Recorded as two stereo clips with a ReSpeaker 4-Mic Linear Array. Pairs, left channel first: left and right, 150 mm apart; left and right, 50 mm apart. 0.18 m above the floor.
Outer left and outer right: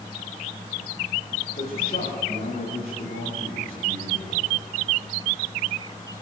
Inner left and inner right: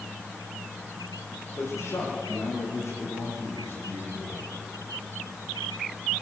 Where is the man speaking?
80° left, 9.5 m; by 4.5 s 75° left (ahead or behind), 13.5 m.